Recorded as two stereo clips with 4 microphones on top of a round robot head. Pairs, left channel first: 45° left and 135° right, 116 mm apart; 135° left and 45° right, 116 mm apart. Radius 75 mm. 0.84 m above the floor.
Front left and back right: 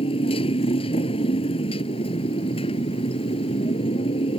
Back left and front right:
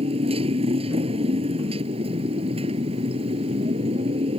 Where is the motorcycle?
Straight ahead.